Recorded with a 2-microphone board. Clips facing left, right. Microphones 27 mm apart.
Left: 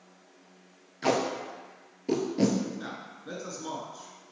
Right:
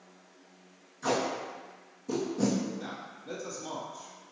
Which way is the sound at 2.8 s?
30° left (ahead or behind).